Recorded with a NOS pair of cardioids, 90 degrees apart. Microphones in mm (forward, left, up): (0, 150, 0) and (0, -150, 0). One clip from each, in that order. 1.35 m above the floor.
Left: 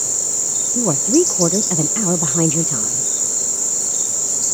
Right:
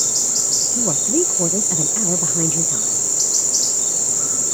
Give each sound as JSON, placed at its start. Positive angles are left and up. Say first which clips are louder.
{"t": 0.8, "sound": "a woman speaking", "louder": "left 3 dB", "azimuth_deg": 35}